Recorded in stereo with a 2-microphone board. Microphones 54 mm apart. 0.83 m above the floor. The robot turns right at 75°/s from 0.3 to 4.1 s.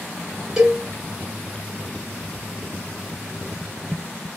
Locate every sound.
0.6 s a cowbell: 10° right (ahead or behind), 1.4 m; by 0.8 s 5° left (ahead or behind), 1.4 m